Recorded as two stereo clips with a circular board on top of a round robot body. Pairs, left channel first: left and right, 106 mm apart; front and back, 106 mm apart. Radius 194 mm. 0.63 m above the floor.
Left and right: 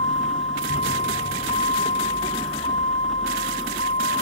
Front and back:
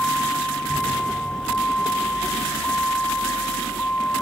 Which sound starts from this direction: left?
A vehicle, at 0.0 s.